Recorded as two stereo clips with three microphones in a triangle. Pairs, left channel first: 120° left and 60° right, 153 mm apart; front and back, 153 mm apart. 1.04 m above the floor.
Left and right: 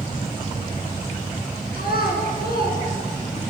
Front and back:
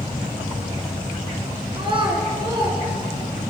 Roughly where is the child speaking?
Behind left.